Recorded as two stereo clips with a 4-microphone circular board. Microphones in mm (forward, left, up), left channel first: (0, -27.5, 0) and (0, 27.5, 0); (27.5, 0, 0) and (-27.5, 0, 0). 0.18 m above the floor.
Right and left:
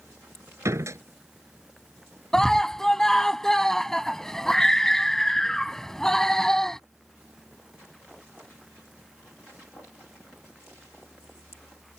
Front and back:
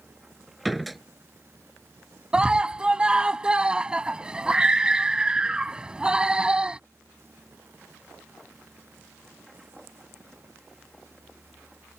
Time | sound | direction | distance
0.7 | a door slam | 90° left | ?
2.3 | a scream | 155° right | ?